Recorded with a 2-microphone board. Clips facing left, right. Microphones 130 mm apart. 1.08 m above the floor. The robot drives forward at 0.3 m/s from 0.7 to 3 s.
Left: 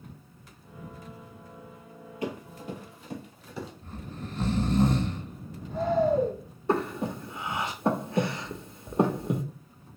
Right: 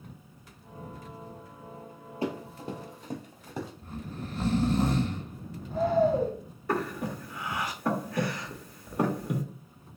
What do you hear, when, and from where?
2.2 s running footsteps: 30° right (ahead or behind), 1.4 m; by 3.7 s 45° right (ahead or behind), 1.5 m
3.8 s snoring: 10° right (ahead or behind), 0.8 m
6.7 s breathing: 25° left (ahead or behind), 0.5 m